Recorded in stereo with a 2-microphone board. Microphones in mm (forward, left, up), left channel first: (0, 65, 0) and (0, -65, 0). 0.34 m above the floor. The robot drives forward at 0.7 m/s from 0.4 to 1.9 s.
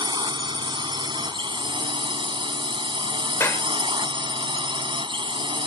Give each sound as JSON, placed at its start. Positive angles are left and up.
{"t": 0.0, "sound": "a drone", "side_deg": -35}
{"t": 3.4, "sound": "a clap", "side_deg": 20}